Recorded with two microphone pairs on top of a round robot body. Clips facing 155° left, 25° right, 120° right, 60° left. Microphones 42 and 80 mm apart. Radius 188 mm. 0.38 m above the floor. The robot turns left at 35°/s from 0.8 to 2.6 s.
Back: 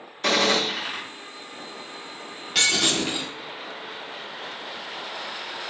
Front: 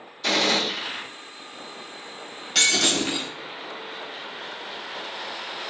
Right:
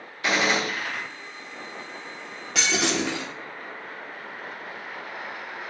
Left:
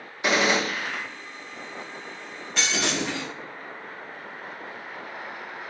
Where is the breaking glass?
125° right, 0.8 m; by 3.3 s 130° right, 0.8 m.